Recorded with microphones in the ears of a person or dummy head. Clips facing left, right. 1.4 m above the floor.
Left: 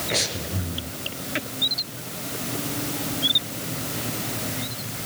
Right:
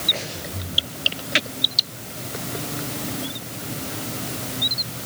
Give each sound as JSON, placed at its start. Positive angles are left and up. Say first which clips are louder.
{"t": 0.1, "sound": "breathing", "louder": "left 3 dB", "side_deg": 75, "distance_m": 4.0}